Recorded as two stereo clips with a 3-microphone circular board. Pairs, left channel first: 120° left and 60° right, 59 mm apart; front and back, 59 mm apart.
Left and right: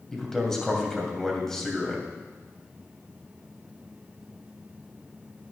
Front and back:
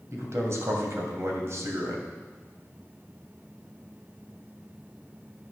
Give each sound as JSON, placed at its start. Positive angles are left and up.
{"t": 0.1, "sound": "a man speaking", "azimuth_deg": -160, "distance_m": 2.5}